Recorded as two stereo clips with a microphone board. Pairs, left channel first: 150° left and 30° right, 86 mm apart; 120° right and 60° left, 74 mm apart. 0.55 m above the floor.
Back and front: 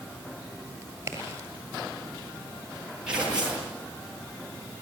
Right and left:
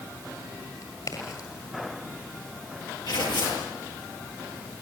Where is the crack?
90° right, 8 m.